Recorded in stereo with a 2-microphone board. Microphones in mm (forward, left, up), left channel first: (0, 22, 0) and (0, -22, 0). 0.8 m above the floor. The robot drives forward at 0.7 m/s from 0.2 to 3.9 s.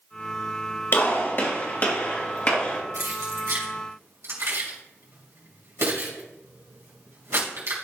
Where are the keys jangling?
85° right, 2.5 m; by 7.7 s 75° right (ahead or behind), 2.5 m.